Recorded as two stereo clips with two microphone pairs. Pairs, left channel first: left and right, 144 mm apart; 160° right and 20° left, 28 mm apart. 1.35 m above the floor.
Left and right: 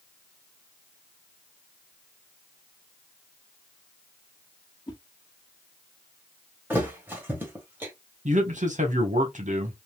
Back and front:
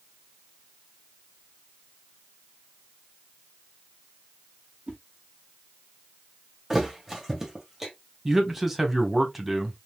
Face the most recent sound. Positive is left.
turn(degrees=-60)